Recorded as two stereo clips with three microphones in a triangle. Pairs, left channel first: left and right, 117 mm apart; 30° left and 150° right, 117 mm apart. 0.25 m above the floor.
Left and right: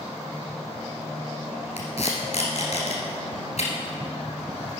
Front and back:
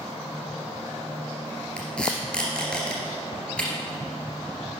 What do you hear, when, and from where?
1.8 s tape being pulled: 110° left, 2.0 m